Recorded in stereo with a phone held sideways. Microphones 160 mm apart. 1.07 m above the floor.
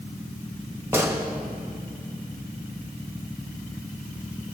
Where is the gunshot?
15° right (ahead or behind), 1.3 m.